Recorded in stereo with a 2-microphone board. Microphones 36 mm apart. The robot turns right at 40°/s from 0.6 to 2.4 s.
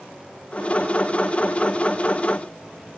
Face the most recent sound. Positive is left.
No sound to turn to.